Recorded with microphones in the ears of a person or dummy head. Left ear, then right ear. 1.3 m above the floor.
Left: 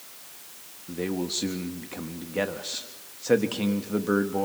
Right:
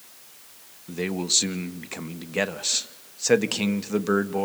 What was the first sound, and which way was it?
A man speaking, 65° right (ahead or behind).